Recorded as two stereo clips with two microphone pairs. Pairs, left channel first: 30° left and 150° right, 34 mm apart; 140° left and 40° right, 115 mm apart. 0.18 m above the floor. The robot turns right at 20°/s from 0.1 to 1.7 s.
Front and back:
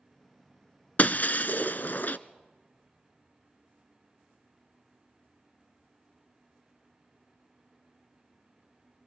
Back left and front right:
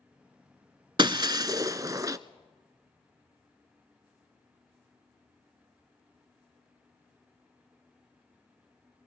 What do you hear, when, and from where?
1.0 s breaking glass: straight ahead, 0.6 m; by 2.2 s 15° left, 0.6 m